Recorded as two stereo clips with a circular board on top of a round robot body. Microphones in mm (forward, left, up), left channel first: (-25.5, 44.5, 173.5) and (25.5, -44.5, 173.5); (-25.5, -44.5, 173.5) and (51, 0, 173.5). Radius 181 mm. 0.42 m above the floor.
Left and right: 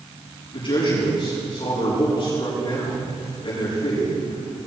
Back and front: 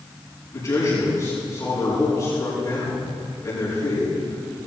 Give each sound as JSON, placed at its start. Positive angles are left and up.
{"t": 0.5, "sound": "a man speaking", "azimuth_deg": 160, "distance_m": 6.5}